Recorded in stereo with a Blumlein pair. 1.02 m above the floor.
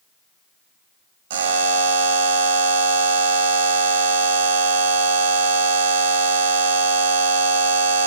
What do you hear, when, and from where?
1.3 s a buzzer: 55° right, 1.2 m